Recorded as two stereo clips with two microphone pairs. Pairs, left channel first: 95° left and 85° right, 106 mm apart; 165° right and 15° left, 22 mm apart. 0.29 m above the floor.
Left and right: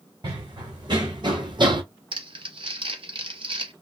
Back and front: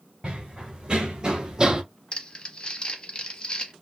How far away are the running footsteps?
About 1.3 m.